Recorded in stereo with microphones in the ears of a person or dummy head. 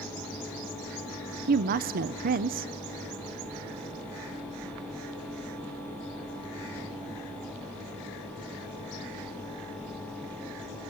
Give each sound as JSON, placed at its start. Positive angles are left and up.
{"t": 1.5, "sound": "a woman speaking", "side_deg": -45, "distance_m": 0.7}